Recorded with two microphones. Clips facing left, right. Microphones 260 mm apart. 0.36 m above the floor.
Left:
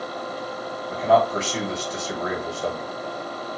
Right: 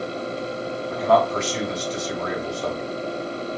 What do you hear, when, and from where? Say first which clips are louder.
0.9 s a man speaking: even; 15° left (ahead or behind), 1.8 m